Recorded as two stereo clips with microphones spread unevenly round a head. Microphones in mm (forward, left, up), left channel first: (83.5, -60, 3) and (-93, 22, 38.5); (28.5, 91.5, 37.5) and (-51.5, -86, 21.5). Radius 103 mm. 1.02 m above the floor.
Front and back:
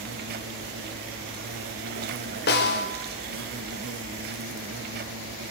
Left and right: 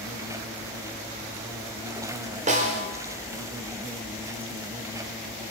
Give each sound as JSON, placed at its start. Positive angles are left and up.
{"t": 0.0, "sound": "an insect", "azimuth_deg": 170, "distance_m": 1.3}
{"t": 2.5, "sound": "a snare drum", "azimuth_deg": -60, "distance_m": 5.0}